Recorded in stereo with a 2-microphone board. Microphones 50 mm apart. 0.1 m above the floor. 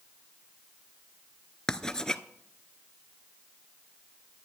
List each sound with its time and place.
1.7 s writing: 15° left (ahead or behind), 0.5 m